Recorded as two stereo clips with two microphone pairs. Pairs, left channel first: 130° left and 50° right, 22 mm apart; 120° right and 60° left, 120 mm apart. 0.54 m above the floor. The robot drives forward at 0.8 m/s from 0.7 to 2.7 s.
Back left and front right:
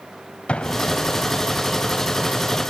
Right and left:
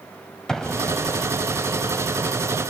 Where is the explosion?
155° left, 1.7 m; by 1.5 s 160° left, 2 m.